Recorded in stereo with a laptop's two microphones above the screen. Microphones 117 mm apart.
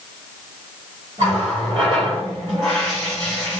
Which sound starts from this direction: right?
A running tap, at 1.2 s.